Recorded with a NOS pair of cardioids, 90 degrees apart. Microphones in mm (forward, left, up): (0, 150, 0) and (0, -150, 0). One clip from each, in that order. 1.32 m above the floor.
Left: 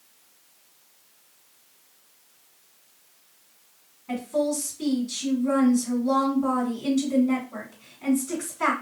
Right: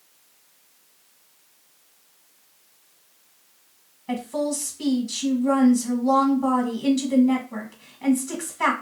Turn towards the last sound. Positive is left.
turn(degrees=-35)